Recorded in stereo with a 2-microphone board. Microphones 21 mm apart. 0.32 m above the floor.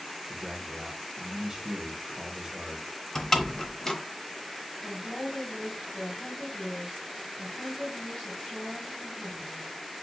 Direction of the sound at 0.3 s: 20° right (ahead or behind).